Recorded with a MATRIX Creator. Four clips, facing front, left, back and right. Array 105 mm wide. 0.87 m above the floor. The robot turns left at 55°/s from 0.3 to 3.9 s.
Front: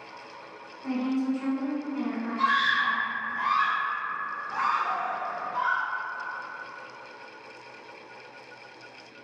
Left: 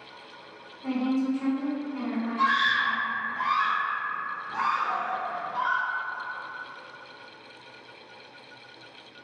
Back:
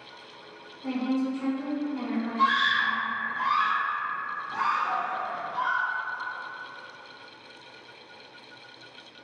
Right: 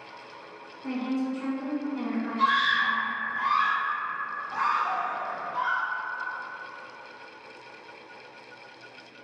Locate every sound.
0.8 s a woman speaking: 100° left, 1.1 m; by 3.1 s 25° right, 1.1 m
2.4 s a scream: 60° left, 1.3 m; by 5.9 s 20° right, 1.3 m